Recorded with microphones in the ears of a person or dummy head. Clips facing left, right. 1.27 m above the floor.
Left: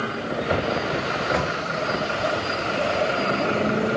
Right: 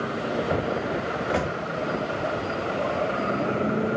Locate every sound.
1.1 s a microwave: 5° right (ahead or behind), 1.7 m